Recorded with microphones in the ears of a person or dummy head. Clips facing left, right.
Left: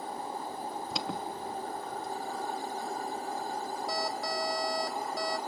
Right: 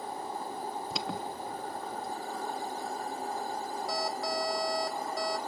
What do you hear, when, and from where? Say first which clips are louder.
0.9 s an alarm: even; 5° left (ahead or behind), 0.5 m